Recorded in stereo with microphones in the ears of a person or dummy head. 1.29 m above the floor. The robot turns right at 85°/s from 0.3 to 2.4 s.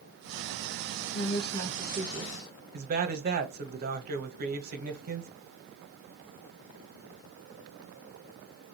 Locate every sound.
1.1 s a woman speaking: 120° left, 1.4 m; by 2.5 s 135° right, 1.4 m
2.7 s a man speaking: 50° right (ahead or behind), 1.1 m